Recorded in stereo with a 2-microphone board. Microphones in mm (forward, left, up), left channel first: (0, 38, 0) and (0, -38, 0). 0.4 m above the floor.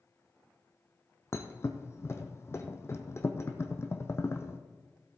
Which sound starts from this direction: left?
A thud, at 1.3 s.